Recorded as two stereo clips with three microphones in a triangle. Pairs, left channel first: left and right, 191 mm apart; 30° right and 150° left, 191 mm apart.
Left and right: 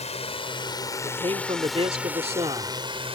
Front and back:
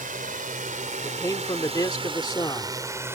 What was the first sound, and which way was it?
A drone, 130° left.